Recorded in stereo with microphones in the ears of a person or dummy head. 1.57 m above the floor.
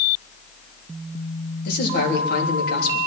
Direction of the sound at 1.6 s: 55° left (ahead or behind).